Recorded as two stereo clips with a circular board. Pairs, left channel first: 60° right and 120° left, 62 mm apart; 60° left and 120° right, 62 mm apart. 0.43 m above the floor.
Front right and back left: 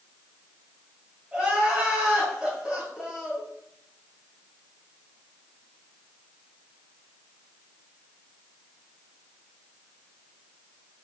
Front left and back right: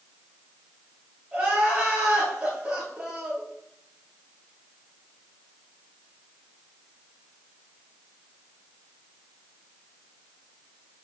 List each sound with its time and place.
1.3 s crying: 175° right, 1.6 m